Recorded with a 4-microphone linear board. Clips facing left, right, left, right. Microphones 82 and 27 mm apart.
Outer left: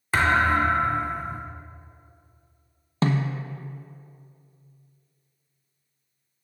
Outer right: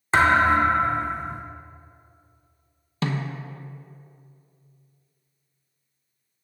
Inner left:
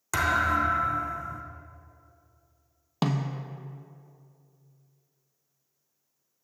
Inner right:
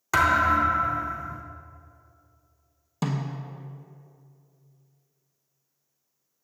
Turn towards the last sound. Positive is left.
turn(degrees=35)  # may be behind; listen again after turning